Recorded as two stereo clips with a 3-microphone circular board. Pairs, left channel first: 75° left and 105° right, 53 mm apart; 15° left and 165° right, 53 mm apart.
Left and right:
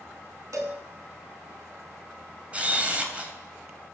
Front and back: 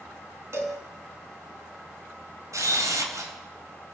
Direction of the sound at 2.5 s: 175° right.